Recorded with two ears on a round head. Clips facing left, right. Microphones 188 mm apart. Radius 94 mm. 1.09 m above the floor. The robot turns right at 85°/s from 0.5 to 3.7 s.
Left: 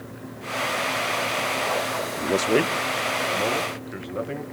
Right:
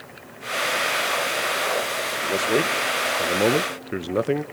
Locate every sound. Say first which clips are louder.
2.2 s a man speaking: left 2 dB; 135° left, 0.9 m; by 4.4 s 95° right, 0.9 m